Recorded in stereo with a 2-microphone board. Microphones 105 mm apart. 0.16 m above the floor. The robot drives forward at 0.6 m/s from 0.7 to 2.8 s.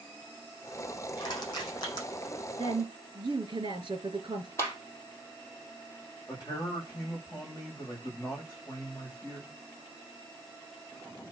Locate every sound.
1.2 s crushing: 40° left (ahead or behind), 8.5 m
2.6 s a woman speaking: 50° right (ahead or behind), 2.5 m
4.6 s a clap: 25° left (ahead or behind), 5 m
6.3 s a man speaking: 30° left (ahead or behind), 10 m